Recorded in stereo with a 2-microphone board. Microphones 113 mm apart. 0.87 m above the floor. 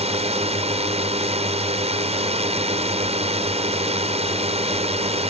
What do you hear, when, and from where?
0.0 s a drone: 70° right (ahead or behind)